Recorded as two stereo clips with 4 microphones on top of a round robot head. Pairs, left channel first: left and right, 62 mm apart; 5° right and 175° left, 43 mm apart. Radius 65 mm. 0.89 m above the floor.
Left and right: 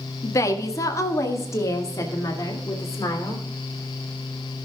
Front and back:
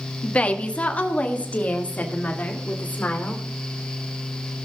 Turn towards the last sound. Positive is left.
turn(degrees=45)